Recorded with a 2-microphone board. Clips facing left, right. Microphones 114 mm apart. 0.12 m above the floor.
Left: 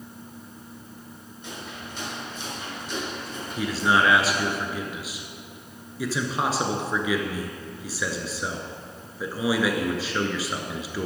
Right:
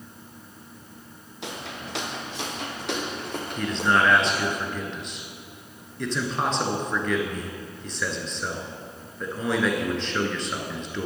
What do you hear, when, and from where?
1.4 s footsteps: 80° right, 2 m; by 4.6 s 55° right (ahead or behind), 3.5 m
3.6 s a man speaking: 5° left (ahead or behind), 1.3 m